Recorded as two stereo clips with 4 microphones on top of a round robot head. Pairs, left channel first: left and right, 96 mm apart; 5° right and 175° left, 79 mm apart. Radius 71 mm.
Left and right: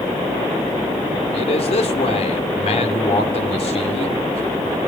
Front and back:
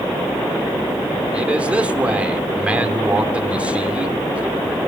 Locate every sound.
1.3 s a man speaking: 100° left, 3 m